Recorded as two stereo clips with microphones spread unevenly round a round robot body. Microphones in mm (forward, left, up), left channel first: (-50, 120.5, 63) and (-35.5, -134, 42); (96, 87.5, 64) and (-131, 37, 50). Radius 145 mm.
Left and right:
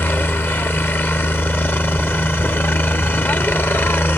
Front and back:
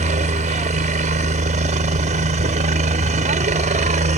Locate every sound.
0.0 s a helicopter: 175° left